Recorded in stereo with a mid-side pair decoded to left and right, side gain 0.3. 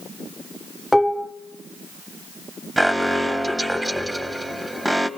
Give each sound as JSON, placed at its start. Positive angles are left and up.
{"t": 0.9, "sound": "dishes clattering", "azimuth_deg": 10, "distance_m": 2.0}
{"t": 2.8, "sound": "an alarm", "azimuth_deg": -10, "distance_m": 3.0}